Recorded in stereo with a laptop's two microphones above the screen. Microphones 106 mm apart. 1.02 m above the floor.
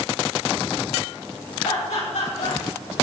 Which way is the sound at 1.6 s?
80° left.